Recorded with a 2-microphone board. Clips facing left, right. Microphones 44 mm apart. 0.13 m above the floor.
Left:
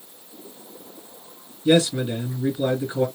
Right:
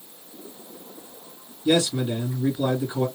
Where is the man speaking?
25° left (ahead or behind), 2 m.